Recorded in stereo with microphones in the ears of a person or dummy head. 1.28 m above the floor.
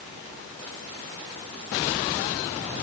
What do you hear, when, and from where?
Only background noise.